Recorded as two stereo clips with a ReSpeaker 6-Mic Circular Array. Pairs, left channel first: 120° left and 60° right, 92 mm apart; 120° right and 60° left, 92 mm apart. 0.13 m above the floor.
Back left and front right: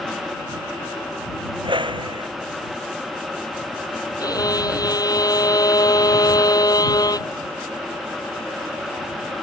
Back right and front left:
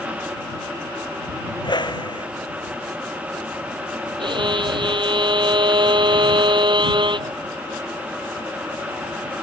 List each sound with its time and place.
1.6 s a whoosh: 85° right
4.2 s a violin: 80° left